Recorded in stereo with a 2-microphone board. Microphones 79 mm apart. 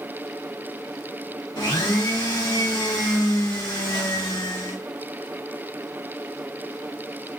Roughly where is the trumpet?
No trumpet in this recording.